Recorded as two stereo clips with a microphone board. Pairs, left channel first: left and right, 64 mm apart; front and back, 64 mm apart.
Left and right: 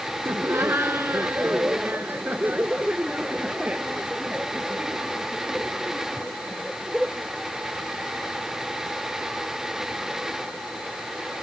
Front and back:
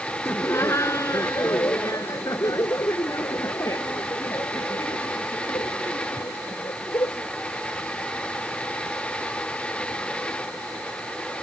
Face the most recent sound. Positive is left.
turn(degrees=-10)